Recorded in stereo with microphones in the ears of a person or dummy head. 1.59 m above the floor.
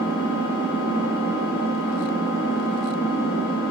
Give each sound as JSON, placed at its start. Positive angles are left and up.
{"t": 0.0, "sound": "an engine running", "side_deg": 65, "distance_m": 5.0}